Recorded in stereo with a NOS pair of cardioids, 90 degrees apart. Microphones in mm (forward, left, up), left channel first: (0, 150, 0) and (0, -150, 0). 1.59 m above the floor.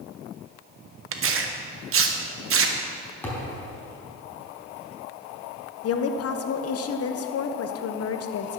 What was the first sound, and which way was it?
Tearing paper, 45° right.